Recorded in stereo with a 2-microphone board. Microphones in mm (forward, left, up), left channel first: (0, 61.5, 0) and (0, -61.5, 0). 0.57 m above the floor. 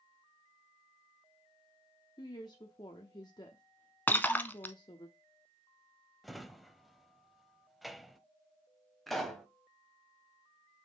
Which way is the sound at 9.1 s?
Centre (ahead or behind).